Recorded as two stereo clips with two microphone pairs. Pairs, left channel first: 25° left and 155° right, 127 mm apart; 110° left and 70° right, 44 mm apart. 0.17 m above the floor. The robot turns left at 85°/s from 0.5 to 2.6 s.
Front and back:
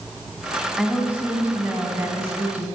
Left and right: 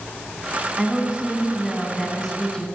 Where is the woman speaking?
65° right, 1.2 m; by 2.7 s 140° left, 1.2 m.